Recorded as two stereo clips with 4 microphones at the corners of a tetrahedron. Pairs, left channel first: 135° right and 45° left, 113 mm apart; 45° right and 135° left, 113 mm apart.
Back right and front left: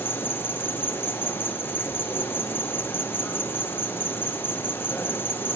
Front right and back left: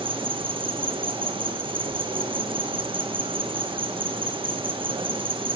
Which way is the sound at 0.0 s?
155° left.